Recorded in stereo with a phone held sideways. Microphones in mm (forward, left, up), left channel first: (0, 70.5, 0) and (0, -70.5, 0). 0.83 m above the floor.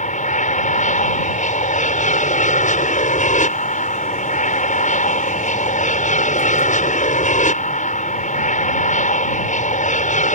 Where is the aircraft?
65° left (ahead or behind).